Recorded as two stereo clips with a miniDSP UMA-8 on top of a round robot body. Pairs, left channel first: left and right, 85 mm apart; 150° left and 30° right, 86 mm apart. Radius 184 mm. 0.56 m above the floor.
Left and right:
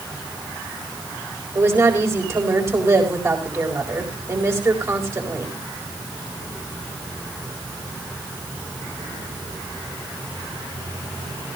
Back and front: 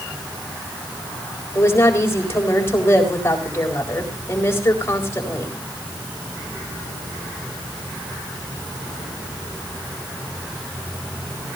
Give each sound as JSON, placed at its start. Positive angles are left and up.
{"t": 1.6, "sound": "a woman speaking", "azimuth_deg": -150, "distance_m": 4.0}